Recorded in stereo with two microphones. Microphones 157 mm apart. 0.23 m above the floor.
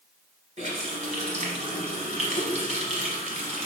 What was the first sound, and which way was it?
A running tap, 45° right (ahead or behind).